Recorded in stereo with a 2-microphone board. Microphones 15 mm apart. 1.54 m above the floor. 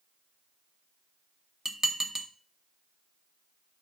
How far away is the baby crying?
No baby crying in this recording.